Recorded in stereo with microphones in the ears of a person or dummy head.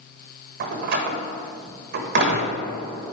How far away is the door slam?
About 1.2 m.